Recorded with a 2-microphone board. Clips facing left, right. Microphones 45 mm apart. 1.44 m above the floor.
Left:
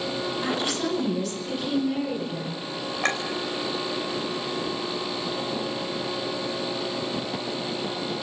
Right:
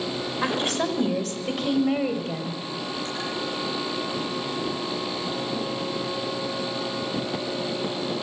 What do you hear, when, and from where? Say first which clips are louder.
0.4 s a woman speaking: right 4 dB; 40° right (ahead or behind), 6.5 m; by 2.6 s 55° right (ahead or behind), 8.5 m
3.0 s a clink: left 6 dB; 85° left, 4.5 m